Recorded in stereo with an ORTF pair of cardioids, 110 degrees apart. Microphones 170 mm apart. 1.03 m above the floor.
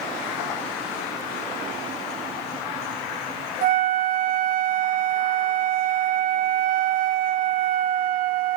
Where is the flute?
55° right, 0.8 m.